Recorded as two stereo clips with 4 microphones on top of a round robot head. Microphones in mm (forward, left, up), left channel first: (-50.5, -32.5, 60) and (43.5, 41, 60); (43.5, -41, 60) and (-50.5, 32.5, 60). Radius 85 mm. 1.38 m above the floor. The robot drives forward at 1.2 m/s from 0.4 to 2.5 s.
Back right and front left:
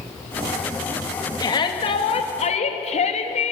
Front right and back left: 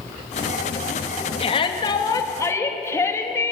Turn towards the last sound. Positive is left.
turn(degrees=-110)